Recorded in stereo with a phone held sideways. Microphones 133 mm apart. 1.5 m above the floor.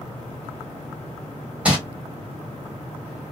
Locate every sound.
1.6 s crumpling: 10° right (ahead or behind), 1.3 m